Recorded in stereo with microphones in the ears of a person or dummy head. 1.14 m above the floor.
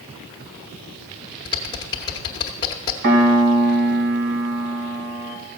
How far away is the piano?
About 2 m.